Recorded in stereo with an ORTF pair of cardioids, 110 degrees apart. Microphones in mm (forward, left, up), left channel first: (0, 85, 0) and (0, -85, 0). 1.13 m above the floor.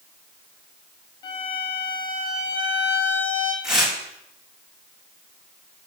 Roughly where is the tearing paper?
Ahead.